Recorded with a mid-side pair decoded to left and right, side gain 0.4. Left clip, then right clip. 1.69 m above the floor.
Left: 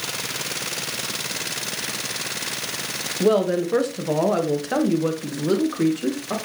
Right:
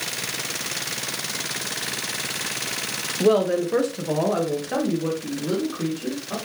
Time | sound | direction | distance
3.2 | a woman speaking | straight ahead | 2 m